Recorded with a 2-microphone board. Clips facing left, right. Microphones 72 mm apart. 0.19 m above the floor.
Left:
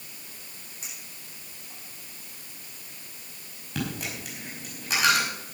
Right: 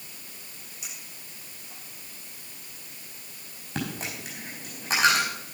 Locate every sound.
0.8 s a clink: 35° left (ahead or behind), 8.5 m
3.8 s a dropped coin: 25° right (ahead or behind), 5 m